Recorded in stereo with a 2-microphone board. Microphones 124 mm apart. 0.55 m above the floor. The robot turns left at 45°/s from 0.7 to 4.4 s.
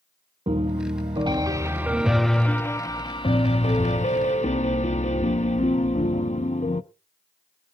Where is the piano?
115° right, 0.8 m; by 6.8 s 80° left, 0.8 m.